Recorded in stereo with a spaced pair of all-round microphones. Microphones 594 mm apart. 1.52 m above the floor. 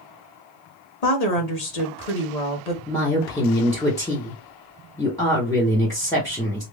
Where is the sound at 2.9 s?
5° left (ahead or behind), 1.0 m.